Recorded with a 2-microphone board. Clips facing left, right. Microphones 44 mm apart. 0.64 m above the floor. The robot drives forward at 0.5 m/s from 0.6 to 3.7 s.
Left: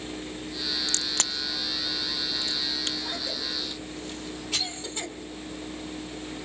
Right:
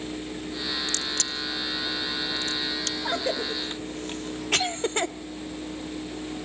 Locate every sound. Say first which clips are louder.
0.9 s a crack: right 1 dB; 50° left (ahead or behind), 0.7 m; by 3.0 s 20° left (ahead or behind), 1.4 m
3.0 s a cough: right 6 dB; 50° right (ahead or behind), 1.1 m